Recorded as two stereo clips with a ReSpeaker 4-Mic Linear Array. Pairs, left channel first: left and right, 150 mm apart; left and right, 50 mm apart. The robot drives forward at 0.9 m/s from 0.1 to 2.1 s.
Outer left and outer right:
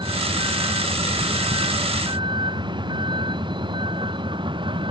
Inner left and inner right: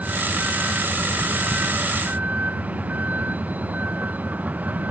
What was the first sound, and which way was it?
A vehicle, 30° right (ahead or behind).